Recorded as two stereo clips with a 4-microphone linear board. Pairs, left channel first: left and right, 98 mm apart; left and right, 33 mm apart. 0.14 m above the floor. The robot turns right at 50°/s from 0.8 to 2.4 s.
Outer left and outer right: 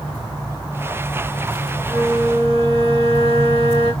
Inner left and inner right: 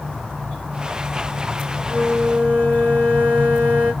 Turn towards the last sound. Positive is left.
turn(degrees=-80)